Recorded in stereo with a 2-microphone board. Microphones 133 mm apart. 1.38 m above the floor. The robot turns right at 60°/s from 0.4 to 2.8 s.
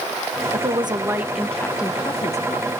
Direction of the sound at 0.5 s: 55° right.